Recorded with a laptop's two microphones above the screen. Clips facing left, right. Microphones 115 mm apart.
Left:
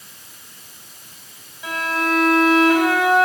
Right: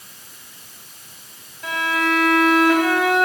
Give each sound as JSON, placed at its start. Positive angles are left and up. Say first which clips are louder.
{"t": 1.6, "sound": "a violin", "louder": "right 1 dB", "side_deg": 5, "distance_m": 7.0}